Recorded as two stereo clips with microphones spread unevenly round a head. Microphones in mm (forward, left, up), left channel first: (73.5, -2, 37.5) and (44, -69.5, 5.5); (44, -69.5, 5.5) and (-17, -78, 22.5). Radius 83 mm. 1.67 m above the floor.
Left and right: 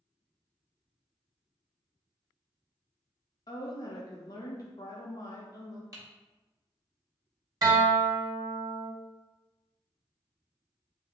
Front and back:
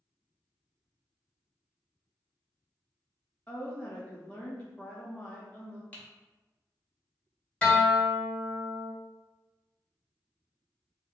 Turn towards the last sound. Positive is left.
turn(degrees=-75)